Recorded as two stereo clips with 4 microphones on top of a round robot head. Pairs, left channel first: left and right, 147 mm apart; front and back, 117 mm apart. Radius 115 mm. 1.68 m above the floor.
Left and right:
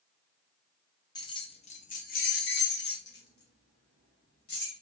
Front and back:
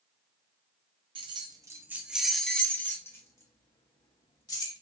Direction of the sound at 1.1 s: 145° left.